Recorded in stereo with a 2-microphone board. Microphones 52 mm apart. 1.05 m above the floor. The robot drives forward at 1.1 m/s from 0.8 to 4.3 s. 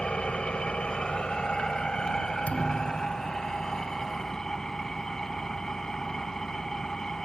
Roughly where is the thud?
Left.